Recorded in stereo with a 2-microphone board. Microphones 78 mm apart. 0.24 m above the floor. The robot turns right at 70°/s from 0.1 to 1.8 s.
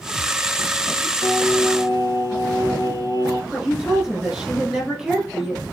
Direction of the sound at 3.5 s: 5° right (ahead or behind).